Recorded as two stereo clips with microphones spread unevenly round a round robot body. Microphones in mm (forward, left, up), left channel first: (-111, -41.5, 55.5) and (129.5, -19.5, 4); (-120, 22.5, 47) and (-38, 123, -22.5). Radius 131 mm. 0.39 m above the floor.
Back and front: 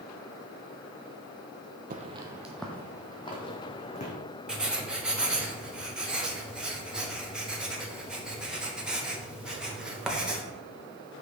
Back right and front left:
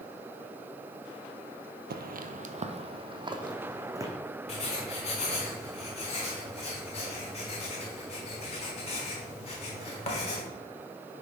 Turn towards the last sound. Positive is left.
turn(degrees=-60)